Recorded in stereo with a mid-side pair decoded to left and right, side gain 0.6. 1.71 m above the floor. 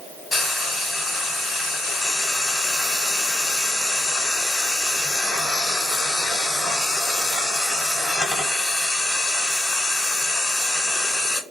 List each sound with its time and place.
0.3 s frying: 25° left, 1.3 m